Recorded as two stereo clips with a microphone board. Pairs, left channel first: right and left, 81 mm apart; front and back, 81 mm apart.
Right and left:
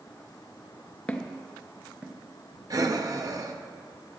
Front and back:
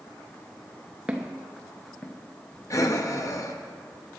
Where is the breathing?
45° left, 0.7 m.